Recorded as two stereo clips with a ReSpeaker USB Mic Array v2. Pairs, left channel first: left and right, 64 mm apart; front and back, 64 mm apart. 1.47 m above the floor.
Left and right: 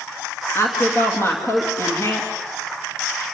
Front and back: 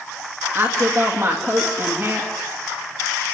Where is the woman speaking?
135° left, 2.5 m.